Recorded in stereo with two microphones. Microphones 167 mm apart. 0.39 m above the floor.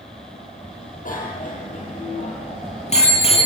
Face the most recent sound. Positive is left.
turn(degrees=35)  # may be behind; listen again after turning